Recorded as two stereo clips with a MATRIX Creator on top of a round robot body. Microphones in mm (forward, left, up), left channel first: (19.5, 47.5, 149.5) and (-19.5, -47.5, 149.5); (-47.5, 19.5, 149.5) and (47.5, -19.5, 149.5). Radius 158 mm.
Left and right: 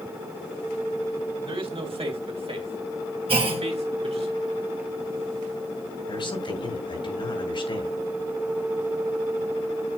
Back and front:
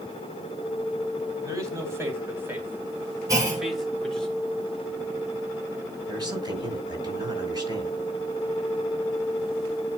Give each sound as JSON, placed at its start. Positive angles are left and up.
{"t": 1.4, "sound": "a man speaking", "azimuth_deg": -80, "distance_m": 3.5}
{"t": 3.3, "sound": "a clunk", "azimuth_deg": -80, "distance_m": 2.0}
{"t": 6.1, "sound": "a man speaking", "azimuth_deg": 30, "distance_m": 4.5}